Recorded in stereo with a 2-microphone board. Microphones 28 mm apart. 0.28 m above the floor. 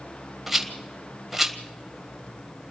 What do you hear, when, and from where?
0.5 s a rattle: 5° right (ahead or behind), 1.6 m